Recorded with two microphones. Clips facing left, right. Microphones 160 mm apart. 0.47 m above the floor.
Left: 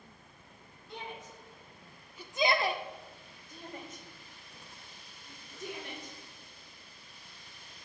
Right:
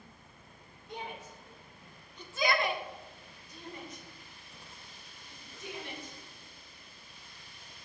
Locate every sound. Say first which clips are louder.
0.9 s a shout: right 2 dB; 40° right (ahead or behind), 1.8 m; by 7.8 s 55° left (ahead or behind), 7 m